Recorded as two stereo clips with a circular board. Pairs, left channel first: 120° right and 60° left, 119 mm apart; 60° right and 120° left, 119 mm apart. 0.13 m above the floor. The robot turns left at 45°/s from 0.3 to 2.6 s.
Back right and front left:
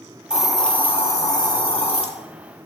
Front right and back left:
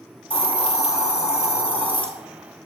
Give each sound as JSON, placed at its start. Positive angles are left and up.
{"t": 0.3, "sound": "a hiss", "azimuth_deg": -20, "distance_m": 0.7}